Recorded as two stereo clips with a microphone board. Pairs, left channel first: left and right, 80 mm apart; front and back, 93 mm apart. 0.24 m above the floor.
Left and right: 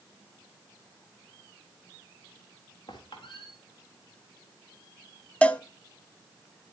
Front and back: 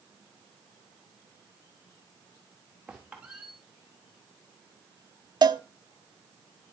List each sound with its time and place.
2.9 s a squeak: 100° left, 3.5 m
5.4 s a cowbell: 160° left, 0.6 m